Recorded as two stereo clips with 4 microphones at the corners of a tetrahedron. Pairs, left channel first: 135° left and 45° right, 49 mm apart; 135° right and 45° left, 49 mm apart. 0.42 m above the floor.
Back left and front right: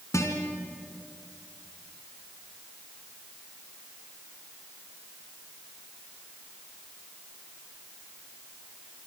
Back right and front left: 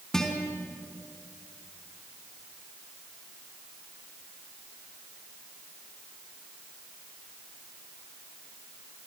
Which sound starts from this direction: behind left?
A guitar, at 0.1 s.